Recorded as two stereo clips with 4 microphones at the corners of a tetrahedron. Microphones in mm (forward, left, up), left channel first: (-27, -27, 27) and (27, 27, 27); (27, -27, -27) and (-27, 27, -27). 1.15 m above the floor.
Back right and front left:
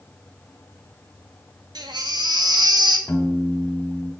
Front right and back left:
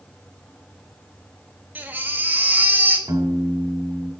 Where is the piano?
170° left, 2 m.